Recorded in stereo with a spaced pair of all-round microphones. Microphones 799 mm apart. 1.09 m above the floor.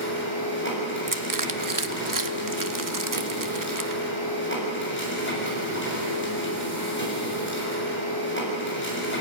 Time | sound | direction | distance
0.0 | a machine running | 15° left (ahead or behind) | 7 m
1.1 | crushing | 25° right (ahead or behind) | 0.8 m